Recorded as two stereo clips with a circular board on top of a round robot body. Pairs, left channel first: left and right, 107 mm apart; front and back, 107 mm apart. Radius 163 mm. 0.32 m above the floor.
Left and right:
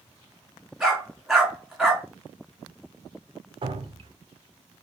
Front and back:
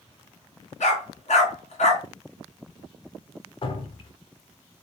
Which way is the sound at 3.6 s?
45° right.